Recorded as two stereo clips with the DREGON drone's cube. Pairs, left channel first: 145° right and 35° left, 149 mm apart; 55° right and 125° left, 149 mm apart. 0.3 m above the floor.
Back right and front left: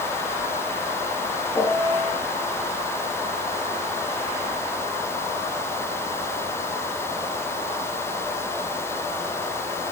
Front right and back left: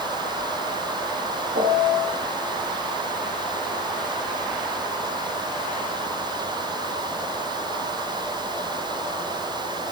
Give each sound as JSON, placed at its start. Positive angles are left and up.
{"t": 1.6, "sound": "a piano", "azimuth_deg": 145, "distance_m": 5.0}